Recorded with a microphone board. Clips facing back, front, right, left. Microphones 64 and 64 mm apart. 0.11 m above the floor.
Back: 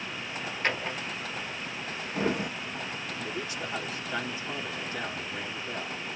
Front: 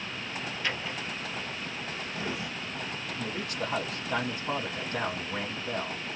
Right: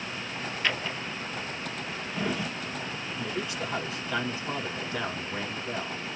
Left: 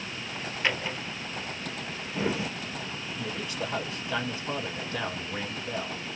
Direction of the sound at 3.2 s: Straight ahead.